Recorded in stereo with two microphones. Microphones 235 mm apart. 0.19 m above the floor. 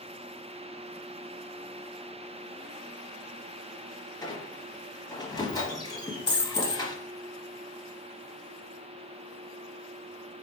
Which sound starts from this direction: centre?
A squeak, at 4.2 s.